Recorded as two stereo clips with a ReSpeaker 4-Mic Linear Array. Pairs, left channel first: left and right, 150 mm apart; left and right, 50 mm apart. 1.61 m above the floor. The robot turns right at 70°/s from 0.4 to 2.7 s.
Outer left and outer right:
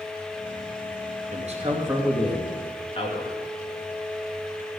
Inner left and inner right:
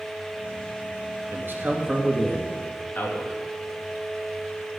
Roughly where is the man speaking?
Ahead right.